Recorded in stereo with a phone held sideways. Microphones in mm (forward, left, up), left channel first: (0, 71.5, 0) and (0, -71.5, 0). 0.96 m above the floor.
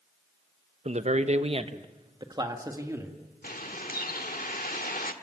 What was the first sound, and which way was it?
A man speaking, 50° right (ahead or behind).